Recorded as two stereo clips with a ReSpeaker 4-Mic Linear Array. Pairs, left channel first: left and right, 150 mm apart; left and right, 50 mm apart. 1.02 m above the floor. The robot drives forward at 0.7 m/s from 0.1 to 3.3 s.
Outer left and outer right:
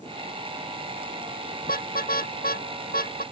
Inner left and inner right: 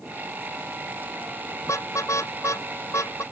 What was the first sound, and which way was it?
A car horn, 85° left.